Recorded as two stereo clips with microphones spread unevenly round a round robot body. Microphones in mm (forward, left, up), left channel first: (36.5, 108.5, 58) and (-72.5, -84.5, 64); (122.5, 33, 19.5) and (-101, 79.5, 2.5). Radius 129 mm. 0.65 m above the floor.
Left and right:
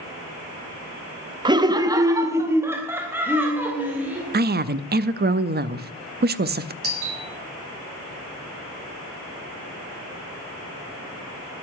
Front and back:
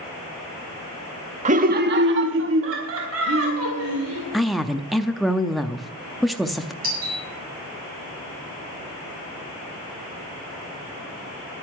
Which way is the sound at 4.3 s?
105° right.